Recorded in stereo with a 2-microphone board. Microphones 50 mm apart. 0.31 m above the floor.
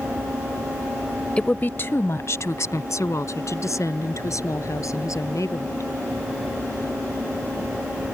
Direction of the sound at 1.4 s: 20° left (ahead or behind).